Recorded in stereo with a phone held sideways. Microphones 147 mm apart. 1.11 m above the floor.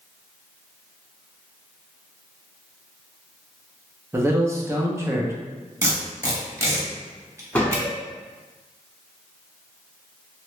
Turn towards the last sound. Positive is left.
turn(degrees=10)  # may be behind; listen again after turning